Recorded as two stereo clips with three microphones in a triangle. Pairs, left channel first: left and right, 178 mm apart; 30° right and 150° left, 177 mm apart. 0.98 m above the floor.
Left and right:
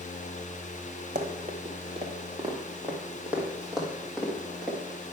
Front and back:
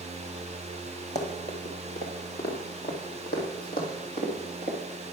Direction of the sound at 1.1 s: 65° right.